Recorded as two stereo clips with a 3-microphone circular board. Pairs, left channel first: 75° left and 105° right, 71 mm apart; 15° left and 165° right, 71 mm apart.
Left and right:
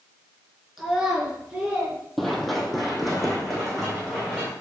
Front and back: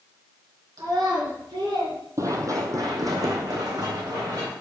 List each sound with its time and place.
0.8 s a child speaking: 170° left, 3.5 m; by 2.0 s 175° right, 4 m
2.2 s running footsteps: 160° left, 1.0 m; by 4.5 s 165° left, 3 m